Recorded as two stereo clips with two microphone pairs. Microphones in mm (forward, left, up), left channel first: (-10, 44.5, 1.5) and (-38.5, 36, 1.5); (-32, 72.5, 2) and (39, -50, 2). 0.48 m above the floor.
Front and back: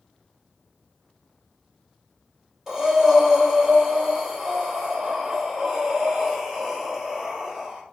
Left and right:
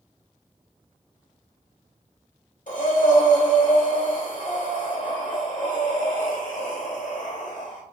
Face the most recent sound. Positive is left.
turn(degrees=115)